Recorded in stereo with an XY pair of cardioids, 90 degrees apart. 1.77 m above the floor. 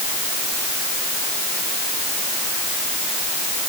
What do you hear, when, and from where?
Only background noise.